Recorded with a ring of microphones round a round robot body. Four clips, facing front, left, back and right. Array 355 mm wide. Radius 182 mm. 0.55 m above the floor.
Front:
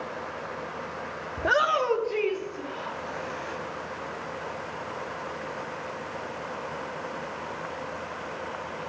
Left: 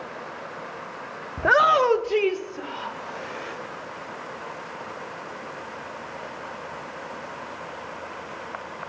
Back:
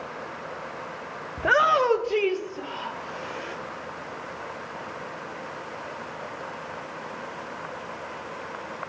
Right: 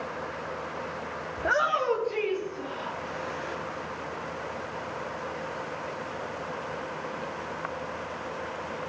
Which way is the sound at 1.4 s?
90° left.